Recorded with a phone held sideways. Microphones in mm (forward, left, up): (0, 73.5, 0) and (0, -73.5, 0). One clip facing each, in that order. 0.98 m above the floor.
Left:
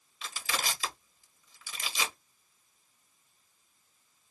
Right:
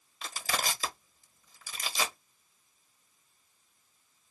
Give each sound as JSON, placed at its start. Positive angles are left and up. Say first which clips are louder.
{"t": 0.2, "sound": "crushing", "louder": "right 2 dB", "side_deg": -40, "distance_m": 1.0}